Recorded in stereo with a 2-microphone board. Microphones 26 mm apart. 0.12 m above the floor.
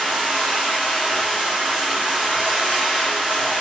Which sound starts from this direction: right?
Running water, at 0.0 s.